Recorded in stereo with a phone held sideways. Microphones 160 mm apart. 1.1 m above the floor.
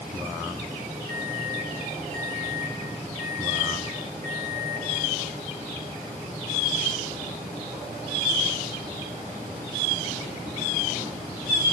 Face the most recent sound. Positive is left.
turn(degrees=-50)  # may be behind; listen again after turning